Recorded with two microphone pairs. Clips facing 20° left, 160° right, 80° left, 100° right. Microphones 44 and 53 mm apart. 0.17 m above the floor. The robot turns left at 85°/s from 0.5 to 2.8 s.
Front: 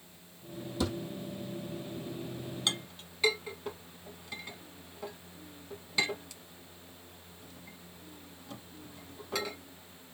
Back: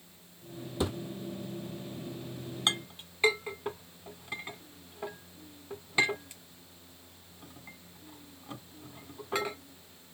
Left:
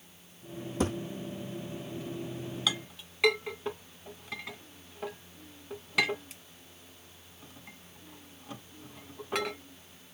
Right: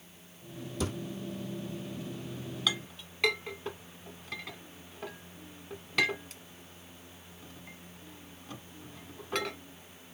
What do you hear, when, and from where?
0.8 s a thud: 135° left, 1.4 m; by 1.0 s 120° left, 1.4 m
2.7 s a clink: 175° left, 1.2 m; by 9.6 s 160° left, 1.2 m